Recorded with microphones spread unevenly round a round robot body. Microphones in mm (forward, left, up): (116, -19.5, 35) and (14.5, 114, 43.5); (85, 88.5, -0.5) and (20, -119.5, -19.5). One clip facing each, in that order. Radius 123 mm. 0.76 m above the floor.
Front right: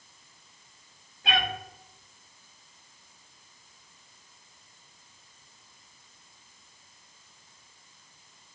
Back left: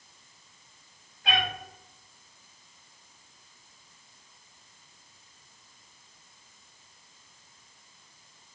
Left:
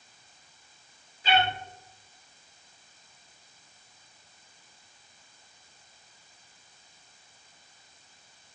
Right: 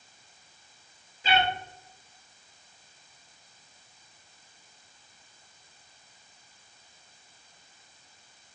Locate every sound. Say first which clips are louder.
1.2 s a cat meowing: front right 1 dB, left 1 dB; 130° right, 1.5 m